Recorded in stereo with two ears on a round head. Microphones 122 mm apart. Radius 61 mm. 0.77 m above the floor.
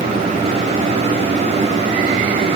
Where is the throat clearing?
No throat clearing in this recording.